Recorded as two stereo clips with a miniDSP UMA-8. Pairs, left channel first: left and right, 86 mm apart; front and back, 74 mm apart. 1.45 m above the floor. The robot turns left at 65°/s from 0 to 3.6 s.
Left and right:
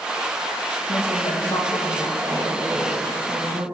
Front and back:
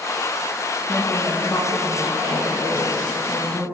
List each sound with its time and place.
0.9 s a woman speaking: 90° left, 2.5 m; by 3.6 s 85° right, 2.5 m